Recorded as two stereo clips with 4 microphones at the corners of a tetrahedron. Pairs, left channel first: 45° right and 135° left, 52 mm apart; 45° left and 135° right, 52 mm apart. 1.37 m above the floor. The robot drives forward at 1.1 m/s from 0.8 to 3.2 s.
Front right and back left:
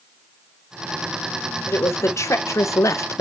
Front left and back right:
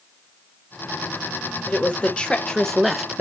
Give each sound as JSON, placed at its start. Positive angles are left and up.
{"t": 1.7, "sound": "a woman speaking", "azimuth_deg": -15, "distance_m": 2.0}